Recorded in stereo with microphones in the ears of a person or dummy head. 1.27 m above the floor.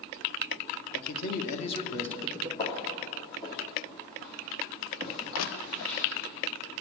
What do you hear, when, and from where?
0.9 s a man speaking: 55° left (ahead or behind), 1.0 m; by 2.5 s 20° right (ahead or behind), 0.5 m
2.6 s footsteps: 25° left (ahead or behind), 2 m; by 6.0 s 15° left (ahead or behind), 4 m
5.3 s crushing: 80° left, 0.5 m